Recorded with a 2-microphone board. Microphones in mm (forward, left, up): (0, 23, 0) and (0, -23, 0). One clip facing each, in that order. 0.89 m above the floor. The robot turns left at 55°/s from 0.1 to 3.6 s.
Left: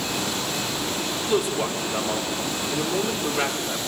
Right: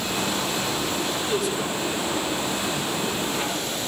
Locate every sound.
1.1 s a man speaking: 160° left, 3 m; by 3.8 s 20° left, 3 m